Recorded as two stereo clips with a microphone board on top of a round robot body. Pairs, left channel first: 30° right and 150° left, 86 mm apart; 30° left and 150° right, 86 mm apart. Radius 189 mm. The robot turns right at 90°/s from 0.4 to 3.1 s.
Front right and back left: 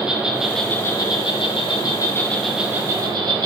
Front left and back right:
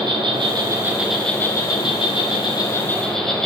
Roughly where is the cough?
No cough in this recording.